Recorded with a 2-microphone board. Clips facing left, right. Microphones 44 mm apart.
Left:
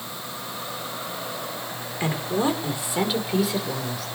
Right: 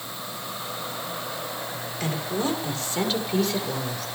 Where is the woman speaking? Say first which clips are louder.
Left 4 dB; 30° left (ahead or behind), 4.5 m; by 4.1 s centre (ahead or behind), 5.5 m.